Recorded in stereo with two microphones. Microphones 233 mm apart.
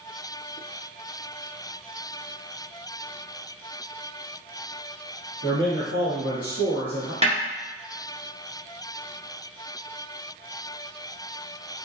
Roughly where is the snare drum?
Right.